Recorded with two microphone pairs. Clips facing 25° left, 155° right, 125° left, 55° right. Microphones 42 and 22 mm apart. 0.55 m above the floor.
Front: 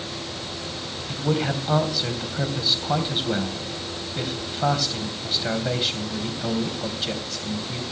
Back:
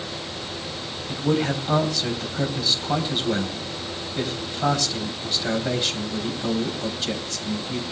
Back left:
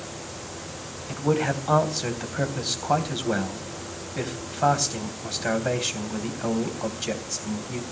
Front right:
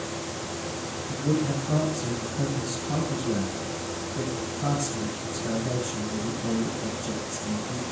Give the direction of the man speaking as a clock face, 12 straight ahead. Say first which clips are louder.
Back 2 dB, back left 3 dB; 8 o'clock.